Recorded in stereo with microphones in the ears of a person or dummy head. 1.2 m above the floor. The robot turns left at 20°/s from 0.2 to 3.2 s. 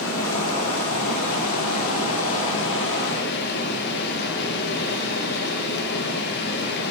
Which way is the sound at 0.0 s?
115° left.